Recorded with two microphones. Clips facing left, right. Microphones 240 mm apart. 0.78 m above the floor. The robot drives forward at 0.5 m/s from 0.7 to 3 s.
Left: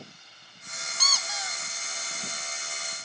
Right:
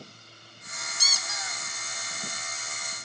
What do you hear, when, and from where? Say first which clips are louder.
1.0 s a squeak: left 4 dB; 25° right (ahead or behind), 0.8 m; by 1.5 s 20° right (ahead or behind), 1.0 m